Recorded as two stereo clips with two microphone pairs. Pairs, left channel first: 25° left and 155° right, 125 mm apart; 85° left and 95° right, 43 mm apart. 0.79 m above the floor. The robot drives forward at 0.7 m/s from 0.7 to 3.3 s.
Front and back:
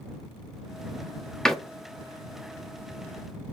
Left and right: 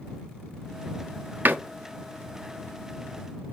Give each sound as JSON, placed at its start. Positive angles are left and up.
{"t": 1.4, "sound": "a door slam", "azimuth_deg": -55, "distance_m": 0.9}